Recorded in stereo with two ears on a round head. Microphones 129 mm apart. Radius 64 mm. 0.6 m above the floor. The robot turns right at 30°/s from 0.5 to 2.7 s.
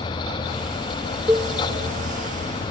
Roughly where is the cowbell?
Centre.